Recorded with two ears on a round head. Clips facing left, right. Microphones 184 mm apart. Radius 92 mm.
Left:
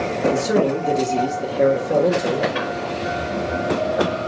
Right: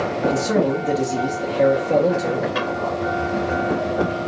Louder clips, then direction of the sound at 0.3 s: Left 1 dB; 15° left (ahead or behind).